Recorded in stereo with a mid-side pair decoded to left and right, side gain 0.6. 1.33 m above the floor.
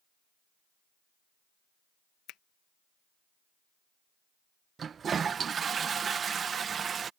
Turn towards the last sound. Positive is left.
turn(degrees=-35)